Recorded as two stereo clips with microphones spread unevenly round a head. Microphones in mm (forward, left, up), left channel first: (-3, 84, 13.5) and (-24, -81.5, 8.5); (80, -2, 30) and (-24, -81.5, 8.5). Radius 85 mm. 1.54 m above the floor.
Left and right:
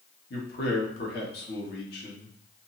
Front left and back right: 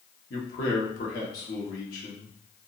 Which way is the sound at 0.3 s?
50° left.